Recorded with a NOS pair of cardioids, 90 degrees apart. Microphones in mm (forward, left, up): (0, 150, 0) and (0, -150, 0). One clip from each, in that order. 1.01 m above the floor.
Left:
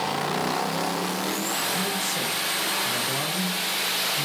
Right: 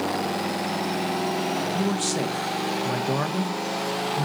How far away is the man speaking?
About 0.9 m.